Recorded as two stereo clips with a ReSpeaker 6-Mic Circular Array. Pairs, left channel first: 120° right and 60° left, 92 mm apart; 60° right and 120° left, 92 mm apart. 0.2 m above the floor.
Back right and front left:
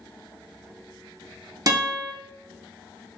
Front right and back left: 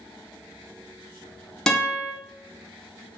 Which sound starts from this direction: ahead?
A guitar, at 1.7 s.